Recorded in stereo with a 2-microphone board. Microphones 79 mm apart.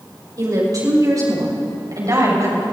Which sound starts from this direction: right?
A woman speaking, at 0.4 s.